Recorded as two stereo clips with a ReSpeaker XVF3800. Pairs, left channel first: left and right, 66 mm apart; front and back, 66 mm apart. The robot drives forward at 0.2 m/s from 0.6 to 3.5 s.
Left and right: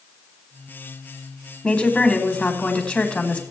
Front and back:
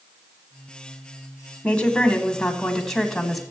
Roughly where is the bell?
I don't hear a bell.